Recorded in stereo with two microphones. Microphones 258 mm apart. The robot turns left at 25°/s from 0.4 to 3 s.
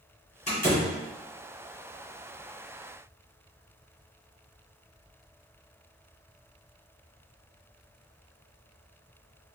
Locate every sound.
0.5 s a door slam: 25° left (ahead or behind), 1.8 m; by 0.9 s 35° left (ahead or behind), 1.8 m